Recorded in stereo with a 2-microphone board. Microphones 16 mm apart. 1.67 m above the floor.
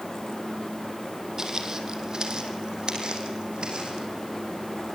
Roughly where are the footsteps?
Right.